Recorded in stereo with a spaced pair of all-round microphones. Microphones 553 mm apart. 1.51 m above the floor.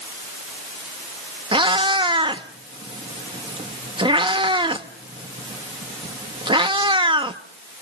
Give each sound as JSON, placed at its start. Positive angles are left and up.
{"t": 1.5, "sound": "a cat meowing", "side_deg": -10, "distance_m": 0.9}